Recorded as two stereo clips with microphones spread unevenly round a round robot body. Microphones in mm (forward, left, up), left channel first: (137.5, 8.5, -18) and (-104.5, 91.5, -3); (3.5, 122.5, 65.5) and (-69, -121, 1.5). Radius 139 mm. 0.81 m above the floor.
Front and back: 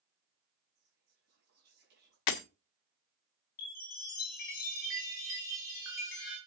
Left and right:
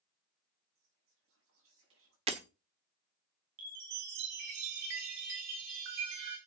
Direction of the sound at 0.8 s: 140° right.